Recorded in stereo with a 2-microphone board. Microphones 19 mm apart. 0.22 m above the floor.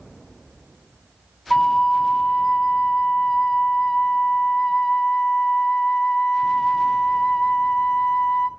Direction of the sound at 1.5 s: 40° left (ahead or behind).